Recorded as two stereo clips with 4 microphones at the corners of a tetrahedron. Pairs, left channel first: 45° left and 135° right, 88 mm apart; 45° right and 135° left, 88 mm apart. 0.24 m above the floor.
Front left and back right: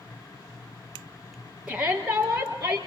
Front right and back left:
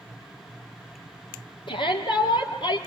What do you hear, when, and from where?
1.7 s a shout: 50° right, 5.5 m